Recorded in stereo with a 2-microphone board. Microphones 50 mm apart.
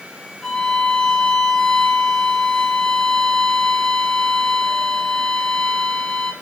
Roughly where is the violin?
Centre.